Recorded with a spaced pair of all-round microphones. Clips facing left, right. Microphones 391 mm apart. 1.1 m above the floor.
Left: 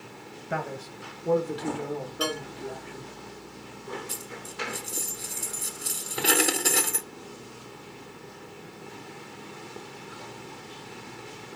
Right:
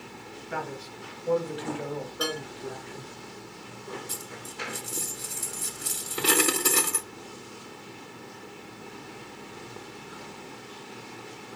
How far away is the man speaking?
About 1.9 m.